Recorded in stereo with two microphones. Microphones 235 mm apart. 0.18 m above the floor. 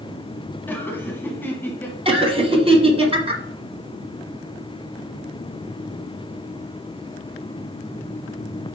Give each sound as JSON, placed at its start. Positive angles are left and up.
{"t": 0.7, "sound": "laughter", "side_deg": 10, "distance_m": 1.1}
{"t": 2.0, "sound": "laughter", "side_deg": -25, "distance_m": 1.4}